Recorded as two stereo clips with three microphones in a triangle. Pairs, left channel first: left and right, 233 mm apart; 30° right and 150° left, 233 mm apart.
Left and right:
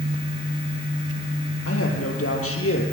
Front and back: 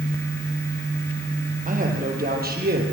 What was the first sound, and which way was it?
A man speaking, 95° left.